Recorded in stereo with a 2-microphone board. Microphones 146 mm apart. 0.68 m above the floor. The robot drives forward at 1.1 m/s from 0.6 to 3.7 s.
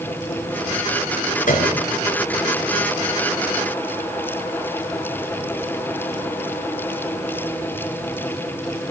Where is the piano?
60° left (ahead or behind), 3.5 m; by 1.9 s 65° left (ahead or behind), 3.5 m.